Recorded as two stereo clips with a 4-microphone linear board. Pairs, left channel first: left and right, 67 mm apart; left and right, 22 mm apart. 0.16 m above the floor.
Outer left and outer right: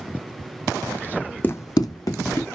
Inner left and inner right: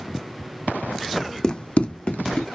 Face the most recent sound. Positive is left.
turn(degrees=55)  # may be behind; listen again after turning